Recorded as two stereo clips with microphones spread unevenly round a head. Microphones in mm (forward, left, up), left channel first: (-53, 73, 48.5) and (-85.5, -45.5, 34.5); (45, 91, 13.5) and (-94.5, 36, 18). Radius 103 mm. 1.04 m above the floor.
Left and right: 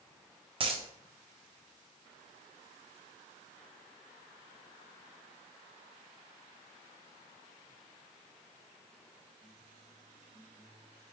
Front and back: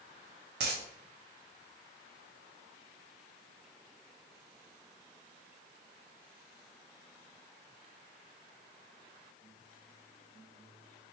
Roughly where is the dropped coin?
Behind right.